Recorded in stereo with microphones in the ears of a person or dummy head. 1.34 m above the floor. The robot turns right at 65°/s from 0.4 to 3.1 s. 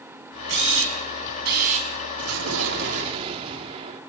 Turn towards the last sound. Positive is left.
turn(degrees=-25)